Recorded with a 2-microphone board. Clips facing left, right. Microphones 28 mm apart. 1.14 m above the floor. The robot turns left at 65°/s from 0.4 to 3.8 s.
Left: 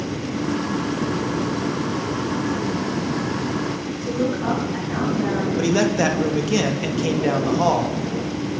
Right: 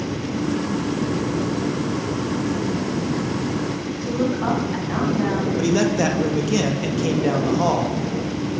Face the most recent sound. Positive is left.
turn(degrees=10)  # may be behind; listen again after turning